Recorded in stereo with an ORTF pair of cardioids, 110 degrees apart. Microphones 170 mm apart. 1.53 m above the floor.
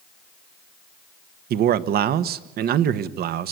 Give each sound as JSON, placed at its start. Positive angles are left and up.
{"t": 1.5, "sound": "a man speaking", "azimuth_deg": -65, "distance_m": 1.3}